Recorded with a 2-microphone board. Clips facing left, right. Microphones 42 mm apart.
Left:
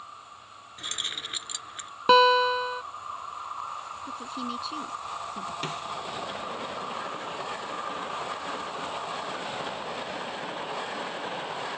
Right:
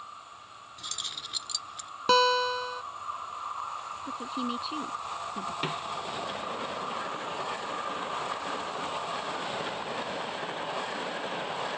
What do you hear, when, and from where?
0.8 s keys jangling: 45° left (ahead or behind)
2.1 s a guitar: 20° left (ahead or behind)
4.0 s a woman speaking: 15° right (ahead or behind)
5.6 s a snare drum: 10° right (ahead or behind)